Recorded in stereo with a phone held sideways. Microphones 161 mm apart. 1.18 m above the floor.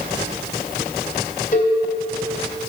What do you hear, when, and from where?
1.5 s a cowbell: 50° left (ahead or behind), 2.5 m